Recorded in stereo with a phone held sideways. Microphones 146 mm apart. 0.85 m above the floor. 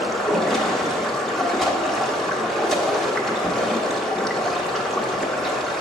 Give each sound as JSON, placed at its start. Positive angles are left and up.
{"t": 0.0, "sound": "running water", "side_deg": 0, "distance_m": 1.0}